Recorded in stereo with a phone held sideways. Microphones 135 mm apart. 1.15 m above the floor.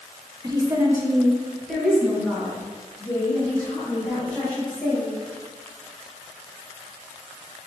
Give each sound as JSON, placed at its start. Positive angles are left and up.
{"t": 0.4, "sound": "a woman speaking", "side_deg": -30, "distance_m": 0.7}